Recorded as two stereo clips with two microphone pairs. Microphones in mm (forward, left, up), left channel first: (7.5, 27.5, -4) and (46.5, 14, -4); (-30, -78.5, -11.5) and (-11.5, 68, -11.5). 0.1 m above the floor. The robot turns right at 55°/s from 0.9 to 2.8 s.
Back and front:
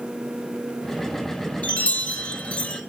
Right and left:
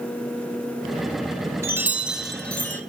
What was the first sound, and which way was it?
A chime, 140° left.